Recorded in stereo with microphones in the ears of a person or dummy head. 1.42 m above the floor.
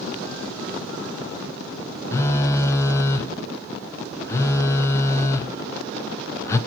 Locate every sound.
2.1 s a phone buzzing: 20° left (ahead or behind), 0.8 m